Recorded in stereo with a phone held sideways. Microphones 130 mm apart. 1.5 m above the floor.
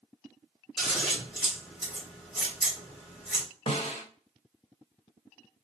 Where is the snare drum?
50° left (ahead or behind), 1.4 m.